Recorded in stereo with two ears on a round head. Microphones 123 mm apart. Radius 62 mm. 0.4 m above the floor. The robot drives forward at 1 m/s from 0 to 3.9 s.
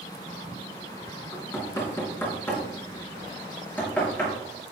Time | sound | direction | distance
1.3 | knocking | 20° left (ahead or behind) | 3.5 m